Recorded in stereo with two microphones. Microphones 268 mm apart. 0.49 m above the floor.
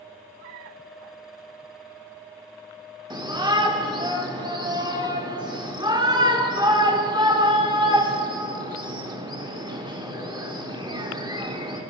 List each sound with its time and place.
3.1 s a shout: 15° right (ahead or behind), 1.5 m